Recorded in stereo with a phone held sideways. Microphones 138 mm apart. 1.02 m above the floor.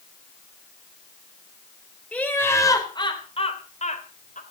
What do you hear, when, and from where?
2.1 s laughter: 10° left (ahead or behind), 3.5 m; by 4.4 s 70° left (ahead or behind), 3.5 m